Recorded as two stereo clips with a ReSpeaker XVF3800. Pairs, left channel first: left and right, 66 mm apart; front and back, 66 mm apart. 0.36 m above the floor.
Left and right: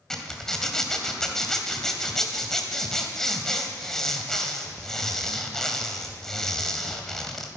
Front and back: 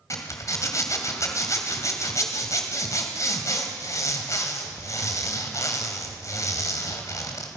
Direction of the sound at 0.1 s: 10° left.